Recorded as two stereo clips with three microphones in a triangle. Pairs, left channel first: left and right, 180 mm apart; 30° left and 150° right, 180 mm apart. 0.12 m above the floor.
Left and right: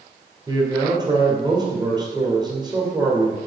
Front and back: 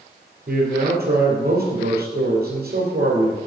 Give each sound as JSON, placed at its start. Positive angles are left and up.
{"t": 0.5, "sound": "a man speaking", "azimuth_deg": -155, "distance_m": 2.5}